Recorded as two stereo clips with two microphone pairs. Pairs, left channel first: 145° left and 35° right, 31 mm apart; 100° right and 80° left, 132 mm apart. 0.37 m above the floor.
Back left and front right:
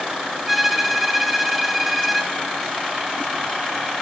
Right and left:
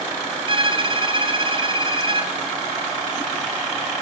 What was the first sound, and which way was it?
A violin, 50° left.